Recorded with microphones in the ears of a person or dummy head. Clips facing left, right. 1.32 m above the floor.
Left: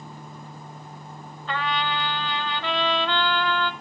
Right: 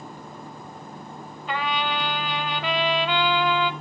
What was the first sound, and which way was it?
A trumpet, 15° right (ahead or behind).